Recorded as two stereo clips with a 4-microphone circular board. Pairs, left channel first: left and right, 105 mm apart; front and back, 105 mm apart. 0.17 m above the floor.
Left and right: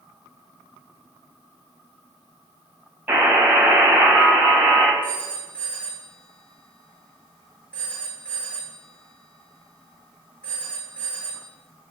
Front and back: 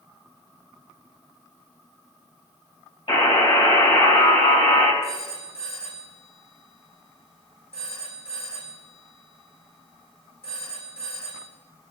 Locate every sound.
3.1 s a buzzer: 15° right, 6 m
5.0 s a phone ringing: 15° left, 7.5 m